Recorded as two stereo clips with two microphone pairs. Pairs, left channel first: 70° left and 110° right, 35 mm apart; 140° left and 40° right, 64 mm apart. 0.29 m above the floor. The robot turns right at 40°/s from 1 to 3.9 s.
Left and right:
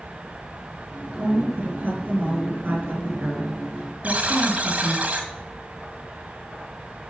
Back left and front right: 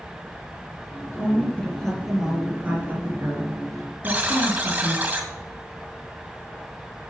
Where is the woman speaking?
165° right, 5 m; by 5.0 s 55° right, 5 m.